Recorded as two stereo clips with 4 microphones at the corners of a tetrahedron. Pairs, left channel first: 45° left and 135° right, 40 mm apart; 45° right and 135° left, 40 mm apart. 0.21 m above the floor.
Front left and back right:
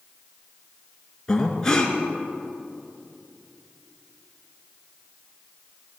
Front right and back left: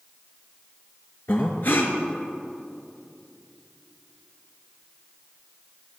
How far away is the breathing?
About 1.4 m.